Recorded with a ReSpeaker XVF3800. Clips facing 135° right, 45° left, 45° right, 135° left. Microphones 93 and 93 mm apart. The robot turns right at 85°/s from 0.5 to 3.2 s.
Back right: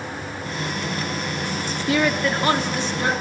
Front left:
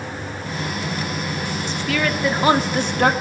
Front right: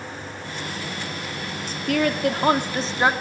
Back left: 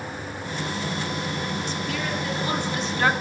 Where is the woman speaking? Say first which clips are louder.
Back right 2 dB, front right 6 dB; 90° right, 2.5 m; by 3.1 s 30° left, 2.5 m.